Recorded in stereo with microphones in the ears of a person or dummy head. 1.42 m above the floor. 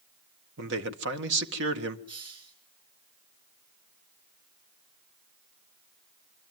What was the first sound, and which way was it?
A man speaking, 65° right (ahead or behind).